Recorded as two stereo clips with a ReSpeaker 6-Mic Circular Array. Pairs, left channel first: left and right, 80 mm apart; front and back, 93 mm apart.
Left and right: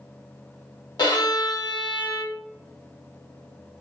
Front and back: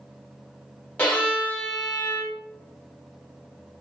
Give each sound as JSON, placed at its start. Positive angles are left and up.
{"t": 1.0, "sound": "a violin", "azimuth_deg": 70, "distance_m": 1.0}